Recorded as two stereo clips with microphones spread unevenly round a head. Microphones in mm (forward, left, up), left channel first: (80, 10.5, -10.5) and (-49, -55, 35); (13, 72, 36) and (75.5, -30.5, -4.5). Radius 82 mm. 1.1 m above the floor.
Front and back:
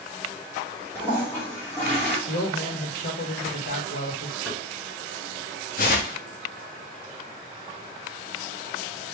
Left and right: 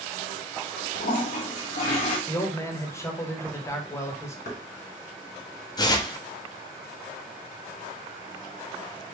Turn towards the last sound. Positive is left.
turn(degrees=70)